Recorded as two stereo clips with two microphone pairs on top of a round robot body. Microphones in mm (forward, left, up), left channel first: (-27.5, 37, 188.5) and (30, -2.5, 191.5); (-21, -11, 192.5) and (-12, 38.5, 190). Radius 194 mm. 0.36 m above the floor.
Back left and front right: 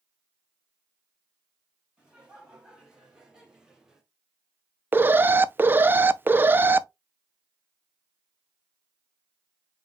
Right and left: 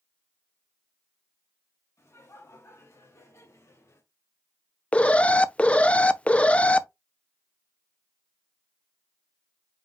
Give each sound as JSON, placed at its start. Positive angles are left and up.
{"t": 2.0, "sound": "laughter", "azimuth_deg": -110, "distance_m": 3.0}
{"t": 4.9, "sound": "an alarm", "azimuth_deg": -55, "distance_m": 0.7}